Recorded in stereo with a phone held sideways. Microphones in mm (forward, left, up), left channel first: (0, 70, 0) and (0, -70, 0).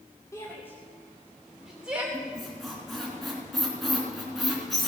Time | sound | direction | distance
0.3 | a shout | 20° left (ahead or behind) | 1.8 m
2.1 | a squeak | centre (ahead or behind) | 3 m